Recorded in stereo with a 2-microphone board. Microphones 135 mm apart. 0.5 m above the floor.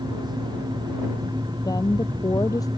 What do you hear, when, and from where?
1.6 s a woman speaking: 30° left (ahead or behind); by 2.7 s 25° left (ahead or behind)